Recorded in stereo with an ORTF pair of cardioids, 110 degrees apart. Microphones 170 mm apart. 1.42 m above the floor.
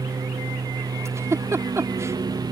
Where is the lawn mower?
20° right; by 2.5 s 25° right.